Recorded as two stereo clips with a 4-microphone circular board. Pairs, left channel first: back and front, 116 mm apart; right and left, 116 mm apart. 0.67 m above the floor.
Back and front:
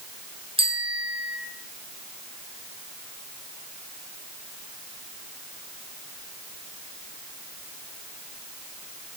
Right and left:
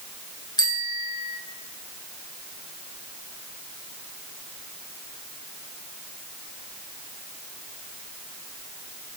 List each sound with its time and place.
0.6 s a bicycle bell: 40° right, 6 m